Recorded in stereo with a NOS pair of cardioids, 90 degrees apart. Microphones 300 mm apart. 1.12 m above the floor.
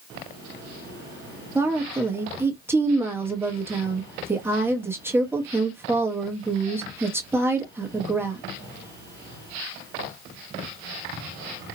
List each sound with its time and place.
1.6 s a woman speaking: 10° right, 1.1 m